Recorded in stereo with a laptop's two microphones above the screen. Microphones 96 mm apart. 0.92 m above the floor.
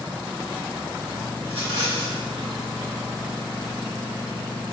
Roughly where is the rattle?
Right.